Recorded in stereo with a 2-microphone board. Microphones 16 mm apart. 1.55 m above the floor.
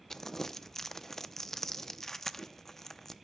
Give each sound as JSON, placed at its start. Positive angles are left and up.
{"t": 0.1, "sound": "crumpling", "side_deg": 25, "distance_m": 0.6}